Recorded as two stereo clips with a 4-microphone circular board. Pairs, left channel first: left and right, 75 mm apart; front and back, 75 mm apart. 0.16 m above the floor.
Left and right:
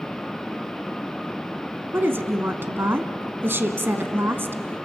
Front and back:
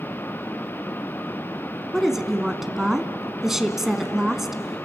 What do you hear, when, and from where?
1.9 s a woman speaking: 100° right, 1.1 m